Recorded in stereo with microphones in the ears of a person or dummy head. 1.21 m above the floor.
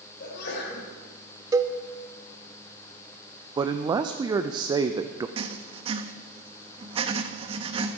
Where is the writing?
35° right (ahead or behind), 0.9 m.